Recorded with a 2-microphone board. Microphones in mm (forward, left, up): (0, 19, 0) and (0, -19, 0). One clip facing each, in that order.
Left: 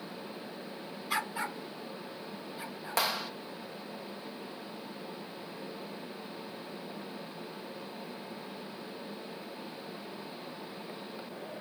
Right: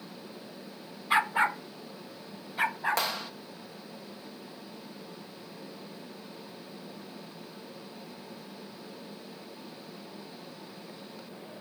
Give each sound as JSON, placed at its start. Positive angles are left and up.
{"t": 1.1, "sound": "a dog barking", "side_deg": -30}
{"t": 3.0, "sound": "a clap", "side_deg": 5}